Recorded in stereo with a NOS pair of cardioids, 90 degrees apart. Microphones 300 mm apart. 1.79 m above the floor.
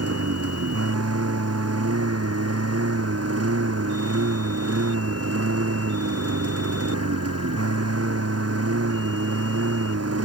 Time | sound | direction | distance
0.0 | a lawn mower | 55° right | ?